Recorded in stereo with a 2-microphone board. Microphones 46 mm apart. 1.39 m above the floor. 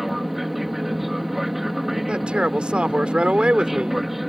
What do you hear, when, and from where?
0.0 s an aircraft: 5° right (ahead or behind)
2.1 s a man speaking: 25° right (ahead or behind)